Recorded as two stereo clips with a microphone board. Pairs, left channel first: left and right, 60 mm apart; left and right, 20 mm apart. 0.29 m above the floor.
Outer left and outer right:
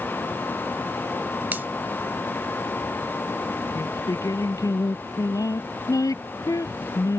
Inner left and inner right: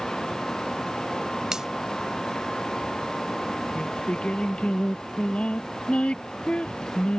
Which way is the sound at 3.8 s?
85° left.